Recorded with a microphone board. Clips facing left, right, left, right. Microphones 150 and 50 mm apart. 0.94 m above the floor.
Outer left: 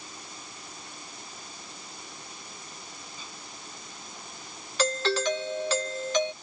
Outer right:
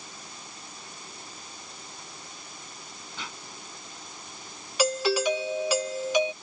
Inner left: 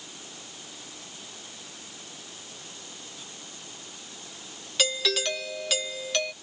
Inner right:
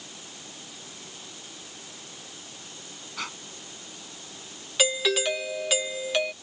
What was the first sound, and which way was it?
Breathing, 80° right.